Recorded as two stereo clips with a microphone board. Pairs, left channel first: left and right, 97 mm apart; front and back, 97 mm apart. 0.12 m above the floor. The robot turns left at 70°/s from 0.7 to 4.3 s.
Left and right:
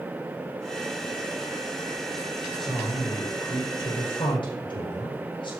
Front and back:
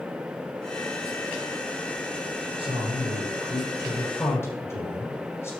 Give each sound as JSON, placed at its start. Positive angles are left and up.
{"t": 2.6, "sound": "a man speaking", "azimuth_deg": 180, "distance_m": 6.5}